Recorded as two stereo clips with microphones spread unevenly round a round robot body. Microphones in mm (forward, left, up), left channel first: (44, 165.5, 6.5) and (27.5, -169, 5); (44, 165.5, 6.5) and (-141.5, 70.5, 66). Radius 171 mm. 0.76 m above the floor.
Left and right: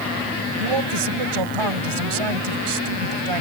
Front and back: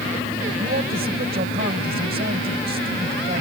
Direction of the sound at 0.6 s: 90° right.